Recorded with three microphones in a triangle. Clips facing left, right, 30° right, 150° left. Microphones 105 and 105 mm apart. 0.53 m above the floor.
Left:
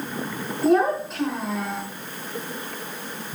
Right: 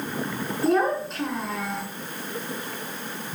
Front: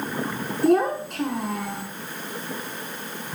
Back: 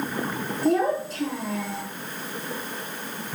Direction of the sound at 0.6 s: Straight ahead.